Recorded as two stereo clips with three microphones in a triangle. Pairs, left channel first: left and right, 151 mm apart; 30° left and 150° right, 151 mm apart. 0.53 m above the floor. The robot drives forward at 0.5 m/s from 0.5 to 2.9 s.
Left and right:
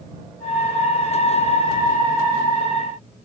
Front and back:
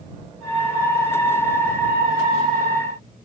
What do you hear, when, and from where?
Only background noise.